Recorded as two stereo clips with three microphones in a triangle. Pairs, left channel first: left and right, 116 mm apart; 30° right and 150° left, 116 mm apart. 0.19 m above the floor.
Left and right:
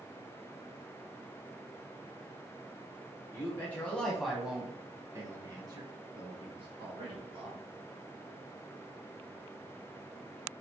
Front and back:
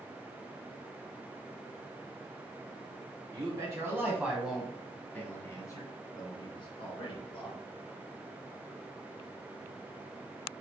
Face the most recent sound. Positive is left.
turn(degrees=-60)